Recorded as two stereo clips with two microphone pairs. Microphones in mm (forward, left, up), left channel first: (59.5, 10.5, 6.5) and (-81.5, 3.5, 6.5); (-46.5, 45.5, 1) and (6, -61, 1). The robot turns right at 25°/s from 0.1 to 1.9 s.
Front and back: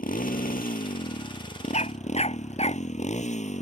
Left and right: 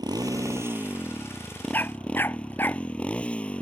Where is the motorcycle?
10° right; by 3.6 s 35° left.